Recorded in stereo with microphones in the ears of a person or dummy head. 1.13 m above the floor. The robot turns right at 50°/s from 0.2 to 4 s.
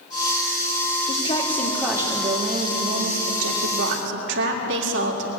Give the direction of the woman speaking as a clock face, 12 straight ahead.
7 o'clock.